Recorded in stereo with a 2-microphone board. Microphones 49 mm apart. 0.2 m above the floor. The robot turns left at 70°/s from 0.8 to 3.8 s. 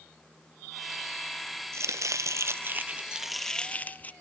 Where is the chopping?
65° right, 0.8 m; by 4.1 s 150° left, 0.8 m.